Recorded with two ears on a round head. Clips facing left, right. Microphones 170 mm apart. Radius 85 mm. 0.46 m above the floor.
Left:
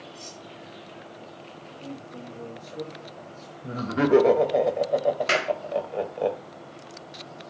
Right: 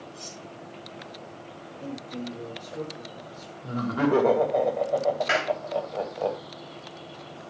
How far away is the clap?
About 2.5 m.